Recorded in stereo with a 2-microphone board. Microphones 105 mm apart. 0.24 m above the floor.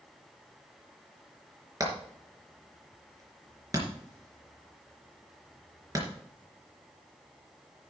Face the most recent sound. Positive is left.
turn(degrees=-35)  # may be behind; listen again after turning